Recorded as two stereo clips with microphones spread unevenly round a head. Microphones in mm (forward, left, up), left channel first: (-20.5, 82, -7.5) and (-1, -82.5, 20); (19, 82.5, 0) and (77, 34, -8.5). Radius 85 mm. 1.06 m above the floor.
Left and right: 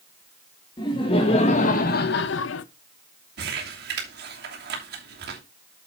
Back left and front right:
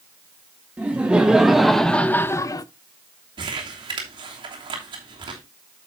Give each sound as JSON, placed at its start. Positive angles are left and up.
{"t": 0.8, "sound": "laughter", "azimuth_deg": 30, "distance_m": 1.2}
{"t": 3.4, "sound": "crumpling", "azimuth_deg": -50, "distance_m": 3.0}